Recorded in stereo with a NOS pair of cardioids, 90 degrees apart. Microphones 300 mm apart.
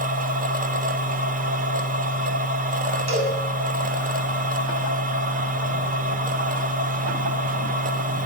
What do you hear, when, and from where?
0.0 s a machine running: 30° right, 0.7 m
3.1 s a cowbell: 60° right, 6 m